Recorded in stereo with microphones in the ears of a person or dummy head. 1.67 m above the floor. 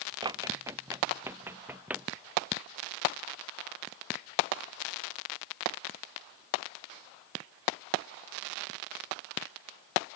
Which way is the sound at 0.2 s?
25° right (ahead or behind).